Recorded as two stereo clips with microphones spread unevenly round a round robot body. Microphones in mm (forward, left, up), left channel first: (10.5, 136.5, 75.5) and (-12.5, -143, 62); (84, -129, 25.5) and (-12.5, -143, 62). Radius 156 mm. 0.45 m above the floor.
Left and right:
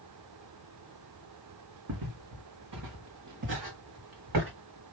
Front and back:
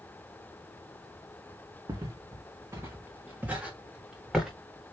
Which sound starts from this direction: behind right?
Footsteps, at 1.9 s.